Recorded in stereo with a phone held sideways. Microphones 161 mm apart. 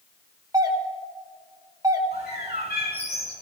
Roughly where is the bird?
Left.